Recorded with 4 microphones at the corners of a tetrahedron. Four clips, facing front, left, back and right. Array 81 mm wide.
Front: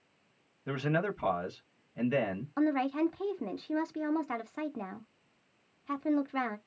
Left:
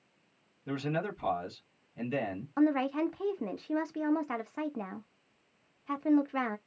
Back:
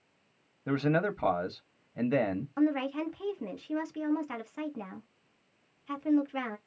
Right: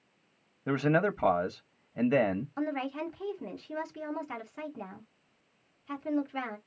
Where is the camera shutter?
No camera shutter in this recording.